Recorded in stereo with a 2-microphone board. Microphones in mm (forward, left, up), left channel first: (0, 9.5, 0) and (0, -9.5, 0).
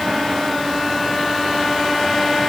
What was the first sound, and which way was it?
Only background noise.